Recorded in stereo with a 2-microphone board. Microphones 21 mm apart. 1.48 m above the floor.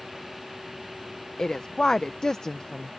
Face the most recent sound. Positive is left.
turn(degrees=40)  # may be behind; listen again after turning